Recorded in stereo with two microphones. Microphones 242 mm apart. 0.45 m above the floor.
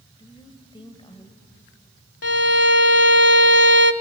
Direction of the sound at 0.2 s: 20° left (ahead or behind).